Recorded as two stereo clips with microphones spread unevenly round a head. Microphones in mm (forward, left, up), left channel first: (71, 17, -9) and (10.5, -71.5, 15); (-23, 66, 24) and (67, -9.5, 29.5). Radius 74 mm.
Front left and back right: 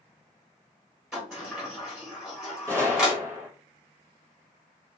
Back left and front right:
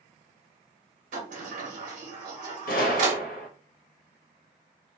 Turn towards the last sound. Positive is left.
turn(degrees=165)